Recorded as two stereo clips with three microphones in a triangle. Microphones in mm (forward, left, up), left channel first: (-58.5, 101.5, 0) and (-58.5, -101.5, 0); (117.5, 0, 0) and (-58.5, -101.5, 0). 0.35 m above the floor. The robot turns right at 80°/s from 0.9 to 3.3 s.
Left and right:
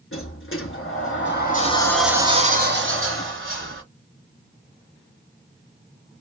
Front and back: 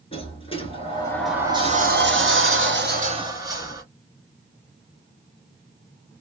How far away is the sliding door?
About 1.2 m.